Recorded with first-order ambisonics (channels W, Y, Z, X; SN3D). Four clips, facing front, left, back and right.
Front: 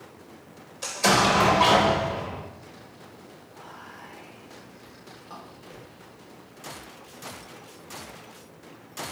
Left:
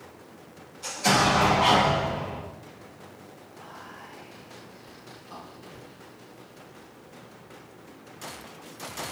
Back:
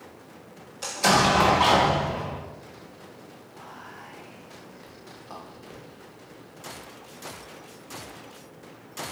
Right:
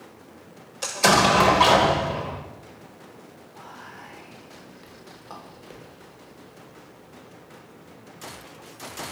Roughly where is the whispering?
Right.